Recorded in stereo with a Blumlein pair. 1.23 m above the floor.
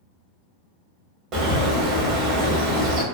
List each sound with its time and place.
1.3 s a bird: 30° right, 0.9 m